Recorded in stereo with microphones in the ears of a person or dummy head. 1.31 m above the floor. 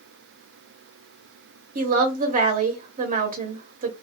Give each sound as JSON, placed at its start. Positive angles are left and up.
{"t": 1.8, "sound": "a woman speaking", "side_deg": -35, "distance_m": 0.6}